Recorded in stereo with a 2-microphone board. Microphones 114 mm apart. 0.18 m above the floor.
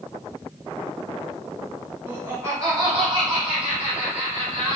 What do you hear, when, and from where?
2.1 s laughter: 15° right (ahead or behind), 1.1 m; by 4.8 s 60° right (ahead or behind), 2.5 m